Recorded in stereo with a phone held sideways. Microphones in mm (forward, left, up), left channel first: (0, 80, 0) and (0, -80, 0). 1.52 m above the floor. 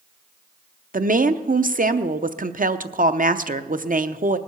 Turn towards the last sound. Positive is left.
turn(degrees=-60)  # may be behind; listen again after turning